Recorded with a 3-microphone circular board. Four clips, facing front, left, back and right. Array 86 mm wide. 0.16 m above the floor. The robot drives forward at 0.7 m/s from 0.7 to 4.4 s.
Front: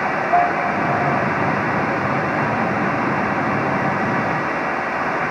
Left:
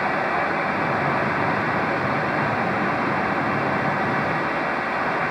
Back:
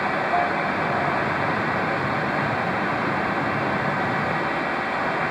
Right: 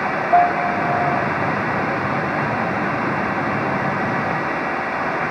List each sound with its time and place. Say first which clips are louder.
0.3 s a piano: right 7 dB, front 8 dB; 65° right; by 1.3 s 70° right